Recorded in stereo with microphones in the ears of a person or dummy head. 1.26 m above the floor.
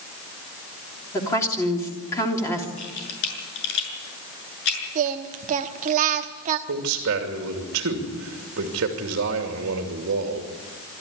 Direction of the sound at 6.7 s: 60° right (ahead or behind).